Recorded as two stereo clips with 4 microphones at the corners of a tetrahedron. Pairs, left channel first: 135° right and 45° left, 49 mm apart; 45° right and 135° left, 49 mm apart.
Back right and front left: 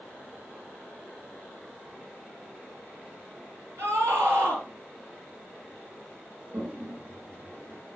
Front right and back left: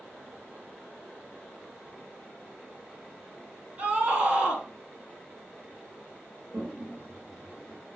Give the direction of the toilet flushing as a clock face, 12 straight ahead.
9 o'clock.